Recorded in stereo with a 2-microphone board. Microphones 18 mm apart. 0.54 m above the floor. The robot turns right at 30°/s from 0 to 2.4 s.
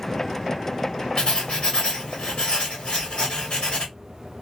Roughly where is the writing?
Ahead left.